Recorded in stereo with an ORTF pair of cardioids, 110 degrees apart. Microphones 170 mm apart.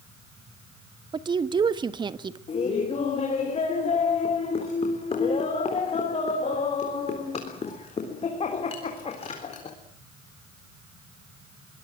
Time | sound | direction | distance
1.1 | a woman speaking | 25° right | 1.5 m
2.5 | laughter | 35° left | 4 m